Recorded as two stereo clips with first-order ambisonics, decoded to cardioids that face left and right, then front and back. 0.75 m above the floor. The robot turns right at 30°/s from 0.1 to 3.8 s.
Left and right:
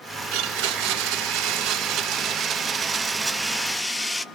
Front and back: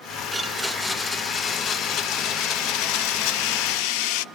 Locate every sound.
0.3 s a blender: 100° right, 0.5 m; by 4.2 s 5° left, 0.5 m